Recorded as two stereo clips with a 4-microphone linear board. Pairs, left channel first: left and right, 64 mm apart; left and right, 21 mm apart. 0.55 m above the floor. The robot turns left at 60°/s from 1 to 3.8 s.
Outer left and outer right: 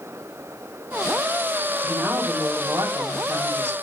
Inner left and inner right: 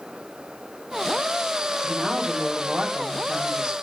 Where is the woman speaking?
30° right, 3.5 m; by 3.7 s 145° right, 3.5 m.